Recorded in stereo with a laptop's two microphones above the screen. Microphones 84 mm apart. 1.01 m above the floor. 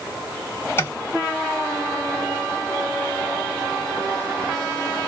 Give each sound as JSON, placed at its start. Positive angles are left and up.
{"t": 0.8, "sound": "tapping", "side_deg": 30, "distance_m": 0.7}